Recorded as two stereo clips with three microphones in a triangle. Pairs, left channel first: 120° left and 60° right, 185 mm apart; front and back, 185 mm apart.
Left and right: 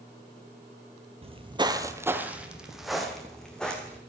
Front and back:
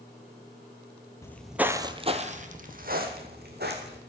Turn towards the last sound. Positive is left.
turn(degrees=-155)